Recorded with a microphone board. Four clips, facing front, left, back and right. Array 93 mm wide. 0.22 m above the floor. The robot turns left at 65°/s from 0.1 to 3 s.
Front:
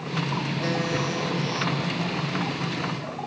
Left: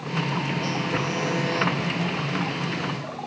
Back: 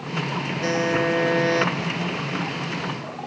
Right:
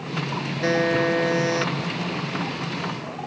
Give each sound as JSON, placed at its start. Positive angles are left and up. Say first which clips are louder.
{"t": 0.6, "sound": "a buzzer", "louder": "right 6 dB, back 7 dB", "azimuth_deg": -105}